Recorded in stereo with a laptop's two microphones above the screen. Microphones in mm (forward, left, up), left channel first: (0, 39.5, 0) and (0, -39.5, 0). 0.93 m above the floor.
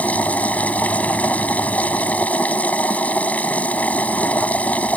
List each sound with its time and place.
0.0 s a machine running: 20° left (ahead or behind)